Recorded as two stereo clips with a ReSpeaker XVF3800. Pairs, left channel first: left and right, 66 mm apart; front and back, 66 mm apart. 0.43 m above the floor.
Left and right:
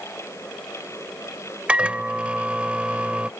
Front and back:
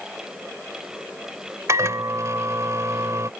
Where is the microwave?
155° right.